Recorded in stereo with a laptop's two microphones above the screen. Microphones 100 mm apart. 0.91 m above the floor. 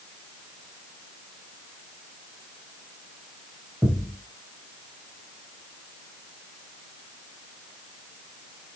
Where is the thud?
15° right (ahead or behind), 4 m.